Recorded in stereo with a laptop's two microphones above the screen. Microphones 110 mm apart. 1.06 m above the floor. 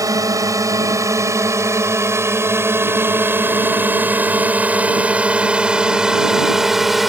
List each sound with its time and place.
0.0 s a drone: 30° right (ahead or behind); by 7.1 s centre (ahead or behind)